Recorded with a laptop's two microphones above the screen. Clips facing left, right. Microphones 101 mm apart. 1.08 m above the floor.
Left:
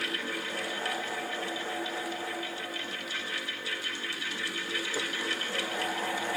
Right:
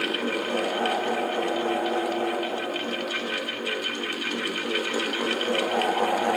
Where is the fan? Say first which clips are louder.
Right 9 dB; 60° right (ahead or behind), 0.8 m.